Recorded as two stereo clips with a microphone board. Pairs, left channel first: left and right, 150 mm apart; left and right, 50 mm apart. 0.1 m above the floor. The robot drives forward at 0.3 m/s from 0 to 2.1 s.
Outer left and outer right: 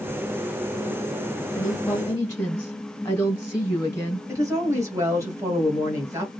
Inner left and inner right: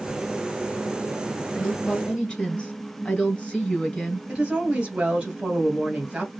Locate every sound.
1.6 s a woman speaking: 20° left (ahead or behind), 1.6 m
4.3 s a woman speaking: 20° right (ahead or behind), 1.8 m